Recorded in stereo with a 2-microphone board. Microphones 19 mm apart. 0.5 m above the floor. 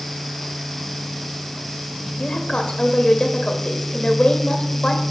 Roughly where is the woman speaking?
Left.